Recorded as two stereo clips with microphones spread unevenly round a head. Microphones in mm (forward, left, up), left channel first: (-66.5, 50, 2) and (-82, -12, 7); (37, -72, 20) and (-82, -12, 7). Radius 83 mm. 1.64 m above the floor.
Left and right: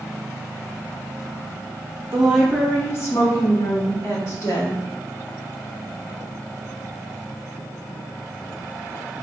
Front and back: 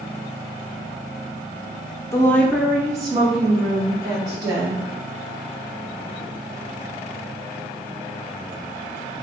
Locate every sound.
2.1 s a woman speaking: 70° right, 0.7 m; by 4.8 s 100° left, 2.5 m